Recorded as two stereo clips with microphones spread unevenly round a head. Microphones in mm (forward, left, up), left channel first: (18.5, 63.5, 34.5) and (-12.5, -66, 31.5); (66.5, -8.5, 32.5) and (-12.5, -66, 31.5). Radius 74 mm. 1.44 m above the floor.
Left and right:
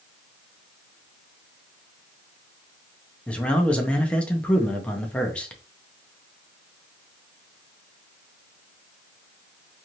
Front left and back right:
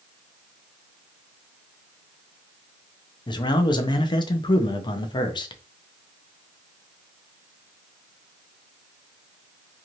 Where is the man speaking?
5° right, 0.6 m.